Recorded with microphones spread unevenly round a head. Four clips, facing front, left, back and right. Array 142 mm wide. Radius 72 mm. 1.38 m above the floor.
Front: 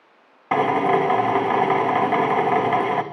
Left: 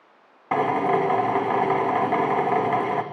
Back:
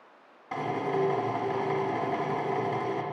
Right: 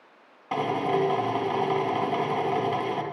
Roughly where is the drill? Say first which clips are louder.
Left 4 dB, front 11 dB; ahead left.